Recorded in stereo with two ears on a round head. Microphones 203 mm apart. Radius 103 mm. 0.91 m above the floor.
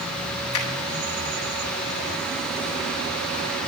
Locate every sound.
0.5 s a finger snap: 75° left (ahead or behind), 8 m